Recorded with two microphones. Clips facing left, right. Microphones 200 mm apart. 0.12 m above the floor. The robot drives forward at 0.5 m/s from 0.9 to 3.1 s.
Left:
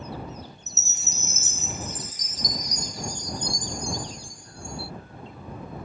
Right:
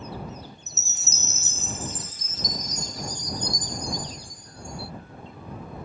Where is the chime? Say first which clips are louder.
Left 1 dB; 50° right (ahead or behind); by 4.9 s 20° right (ahead or behind).